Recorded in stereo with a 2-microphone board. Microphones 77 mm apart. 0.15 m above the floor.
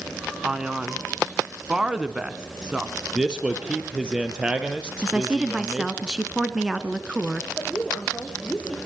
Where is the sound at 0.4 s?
10° right (ahead or behind), 1.3 m.